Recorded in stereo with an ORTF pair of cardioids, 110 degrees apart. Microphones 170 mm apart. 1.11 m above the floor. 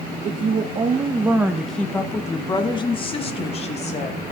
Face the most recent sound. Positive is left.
turn(degrees=45)